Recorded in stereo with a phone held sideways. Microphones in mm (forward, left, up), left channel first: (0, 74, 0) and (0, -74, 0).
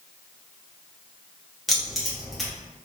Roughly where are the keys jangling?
Centre.